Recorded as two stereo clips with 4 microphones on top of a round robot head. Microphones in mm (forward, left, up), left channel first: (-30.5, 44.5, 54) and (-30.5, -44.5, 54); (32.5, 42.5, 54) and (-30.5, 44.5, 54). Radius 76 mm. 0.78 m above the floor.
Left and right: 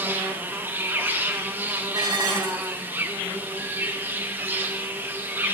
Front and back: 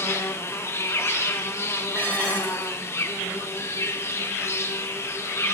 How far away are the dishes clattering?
About 3.5 m.